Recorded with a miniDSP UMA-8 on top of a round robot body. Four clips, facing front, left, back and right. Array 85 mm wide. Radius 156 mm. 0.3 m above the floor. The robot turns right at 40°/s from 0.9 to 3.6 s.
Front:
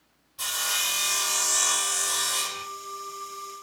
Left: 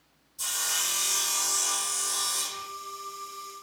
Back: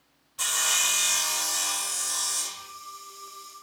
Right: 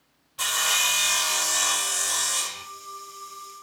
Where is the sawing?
105° right, 1.5 m; by 2.6 s 35° right, 1.5 m.